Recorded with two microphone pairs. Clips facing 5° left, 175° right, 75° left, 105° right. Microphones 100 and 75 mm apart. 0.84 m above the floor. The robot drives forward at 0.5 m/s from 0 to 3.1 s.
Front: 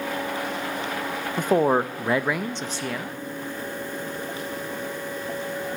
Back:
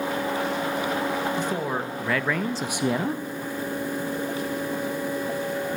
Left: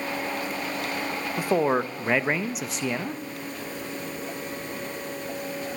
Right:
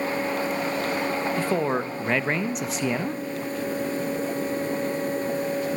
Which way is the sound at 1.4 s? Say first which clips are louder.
Front 7 dB, left 5 dB; straight ahead.